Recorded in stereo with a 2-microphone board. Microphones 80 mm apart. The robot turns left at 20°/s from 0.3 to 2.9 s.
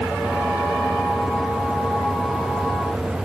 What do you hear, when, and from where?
Only background noise.